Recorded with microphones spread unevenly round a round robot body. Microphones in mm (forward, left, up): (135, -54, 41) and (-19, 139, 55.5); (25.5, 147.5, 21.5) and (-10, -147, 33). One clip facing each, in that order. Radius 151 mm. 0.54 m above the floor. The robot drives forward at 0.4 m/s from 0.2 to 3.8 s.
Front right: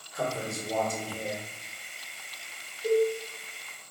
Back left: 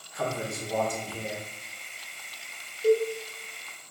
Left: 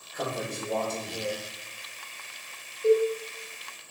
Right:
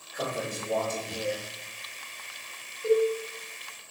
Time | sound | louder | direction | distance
0.1 | a man speaking | even, even | 10° right | 1.7 m
2.8 | a cowbell | back left 2 dB, left 2 dB | 150° left | 1.8 m